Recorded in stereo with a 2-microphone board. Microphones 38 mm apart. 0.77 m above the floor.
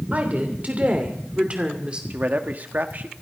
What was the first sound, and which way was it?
A woman speaking, 45° right (ahead or behind).